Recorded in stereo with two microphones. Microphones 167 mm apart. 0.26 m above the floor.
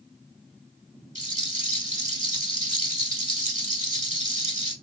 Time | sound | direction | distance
1.1 | a rattle | 45° right (ahead or behind) | 0.7 m